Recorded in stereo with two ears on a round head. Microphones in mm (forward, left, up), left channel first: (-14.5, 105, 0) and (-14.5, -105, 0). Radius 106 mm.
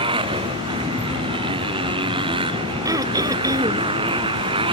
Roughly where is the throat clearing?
Centre.